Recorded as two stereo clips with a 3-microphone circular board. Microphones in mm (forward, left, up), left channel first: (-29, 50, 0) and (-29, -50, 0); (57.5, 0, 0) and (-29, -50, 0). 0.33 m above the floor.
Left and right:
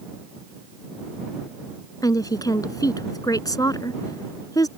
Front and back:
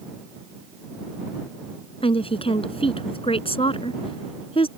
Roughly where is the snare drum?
No snare drum in this recording.